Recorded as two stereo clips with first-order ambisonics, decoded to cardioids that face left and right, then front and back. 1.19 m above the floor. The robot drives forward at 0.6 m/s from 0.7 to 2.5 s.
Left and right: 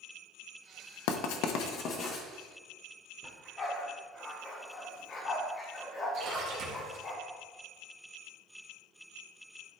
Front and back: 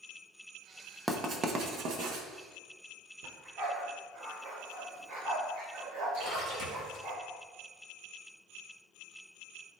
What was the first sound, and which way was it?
Writing, 95° left.